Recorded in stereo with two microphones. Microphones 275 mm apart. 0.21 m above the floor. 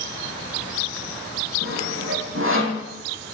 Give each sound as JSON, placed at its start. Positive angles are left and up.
{"t": 1.6, "sound": "sawing", "side_deg": -50, "distance_m": 1.9}